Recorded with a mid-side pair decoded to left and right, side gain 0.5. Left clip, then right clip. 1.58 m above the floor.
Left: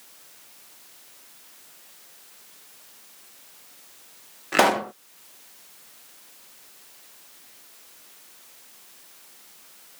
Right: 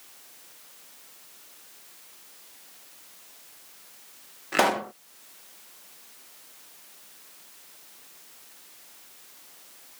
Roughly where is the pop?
Ahead.